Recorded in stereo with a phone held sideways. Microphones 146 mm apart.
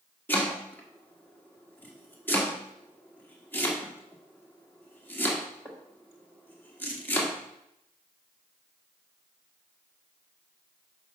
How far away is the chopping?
About 1.5 m.